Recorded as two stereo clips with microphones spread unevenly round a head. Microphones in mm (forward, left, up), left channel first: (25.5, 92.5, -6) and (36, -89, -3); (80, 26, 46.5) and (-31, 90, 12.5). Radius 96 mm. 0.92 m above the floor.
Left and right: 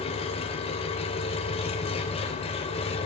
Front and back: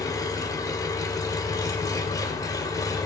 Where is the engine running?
35° left, 3 m.